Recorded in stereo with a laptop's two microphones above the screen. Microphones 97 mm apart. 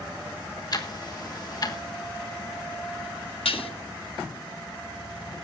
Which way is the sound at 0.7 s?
45° left (ahead or behind).